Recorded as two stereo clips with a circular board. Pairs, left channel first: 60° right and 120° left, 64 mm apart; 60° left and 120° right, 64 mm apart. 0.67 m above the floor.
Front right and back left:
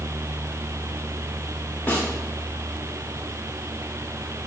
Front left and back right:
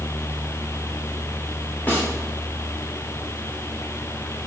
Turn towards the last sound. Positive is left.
turn(degrees=0)